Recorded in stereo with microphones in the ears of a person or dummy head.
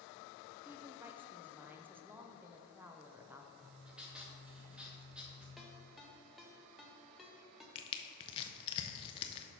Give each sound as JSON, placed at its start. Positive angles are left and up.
{"t": 0.7, "sound": "a woman speaking", "side_deg": -10, "distance_m": 0.5}
{"t": 3.6, "sound": "writing", "side_deg": -5, "distance_m": 1.0}
{"t": 5.6, "sound": "a ringtone", "side_deg": 0, "distance_m": 0.8}
{"t": 7.8, "sound": "crushing", "side_deg": 30, "distance_m": 0.6}